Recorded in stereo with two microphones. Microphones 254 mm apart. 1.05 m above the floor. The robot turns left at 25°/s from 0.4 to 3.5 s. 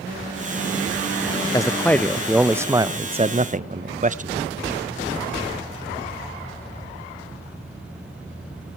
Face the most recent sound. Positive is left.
turn(degrees=-35)